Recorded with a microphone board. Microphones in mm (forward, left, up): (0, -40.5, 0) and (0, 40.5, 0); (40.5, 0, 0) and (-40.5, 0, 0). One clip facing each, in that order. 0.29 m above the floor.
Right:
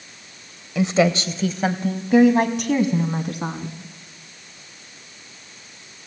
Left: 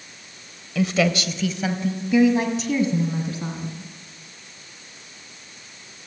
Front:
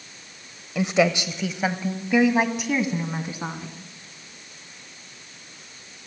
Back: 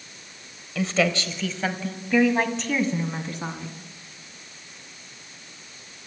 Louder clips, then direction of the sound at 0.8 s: Right 3 dB, front 3 dB; 50° right.